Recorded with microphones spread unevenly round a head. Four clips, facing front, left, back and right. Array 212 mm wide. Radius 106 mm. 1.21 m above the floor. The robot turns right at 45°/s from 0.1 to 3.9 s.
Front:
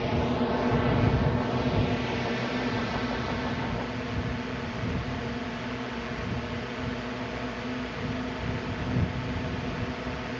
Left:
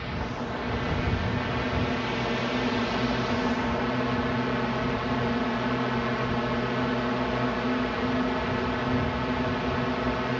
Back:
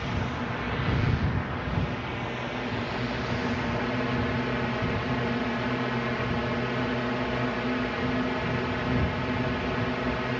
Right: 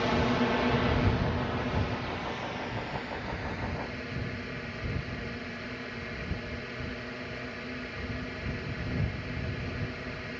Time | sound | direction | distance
0.0 | a drone | 50° right | ?